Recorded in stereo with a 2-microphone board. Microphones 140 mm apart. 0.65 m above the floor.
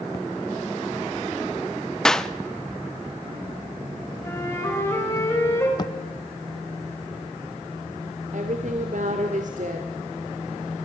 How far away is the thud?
About 0.6 m.